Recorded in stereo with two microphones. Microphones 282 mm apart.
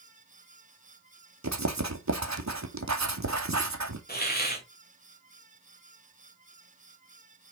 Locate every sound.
1.4 s writing: 85° right, 1.9 m
4.1 s a hiss: 35° left (ahead or behind), 2 m